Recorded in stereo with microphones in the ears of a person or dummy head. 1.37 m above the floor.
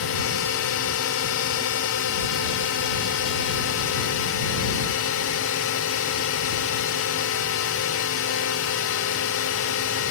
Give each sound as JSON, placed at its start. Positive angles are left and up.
{"t": 0.0, "sound": "a drone", "side_deg": 70}